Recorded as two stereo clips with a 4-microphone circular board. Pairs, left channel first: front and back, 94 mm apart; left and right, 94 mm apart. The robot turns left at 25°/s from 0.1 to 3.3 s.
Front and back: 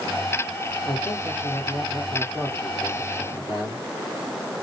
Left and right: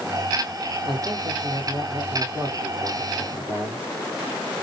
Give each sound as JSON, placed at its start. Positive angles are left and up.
{"t": 0.9, "sound": "a man speaking", "azimuth_deg": -80, "distance_m": 2.5}